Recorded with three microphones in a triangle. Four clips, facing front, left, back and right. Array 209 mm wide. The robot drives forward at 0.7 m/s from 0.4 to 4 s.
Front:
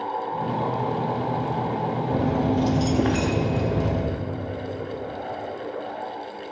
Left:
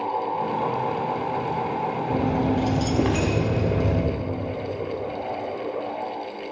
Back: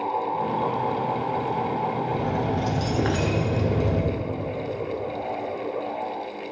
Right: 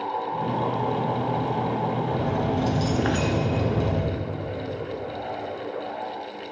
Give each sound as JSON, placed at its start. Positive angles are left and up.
{"t": 2.1, "sound": "keys jangling", "azimuth_deg": 25, "distance_m": 1.1}